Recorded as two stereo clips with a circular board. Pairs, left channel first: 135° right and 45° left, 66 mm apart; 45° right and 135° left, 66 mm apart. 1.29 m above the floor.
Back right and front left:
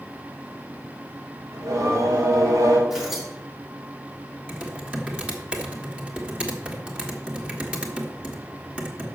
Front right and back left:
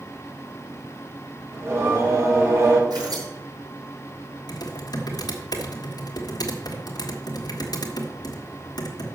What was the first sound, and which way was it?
Singing, 85° left.